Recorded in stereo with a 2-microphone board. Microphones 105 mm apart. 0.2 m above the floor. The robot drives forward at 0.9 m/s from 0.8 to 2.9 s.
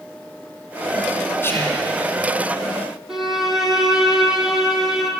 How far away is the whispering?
About 1.5 m.